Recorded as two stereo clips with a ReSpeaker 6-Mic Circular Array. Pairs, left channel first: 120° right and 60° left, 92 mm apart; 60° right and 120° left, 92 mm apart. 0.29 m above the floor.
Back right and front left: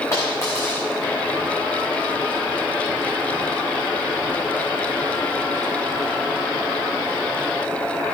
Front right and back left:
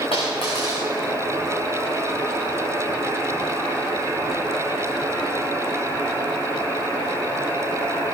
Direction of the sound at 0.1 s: 60° right.